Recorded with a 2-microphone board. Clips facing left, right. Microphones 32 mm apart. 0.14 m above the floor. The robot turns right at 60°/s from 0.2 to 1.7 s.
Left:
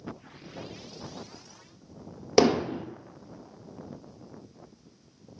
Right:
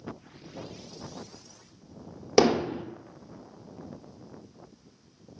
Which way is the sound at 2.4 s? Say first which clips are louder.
Even; centre (ahead or behind).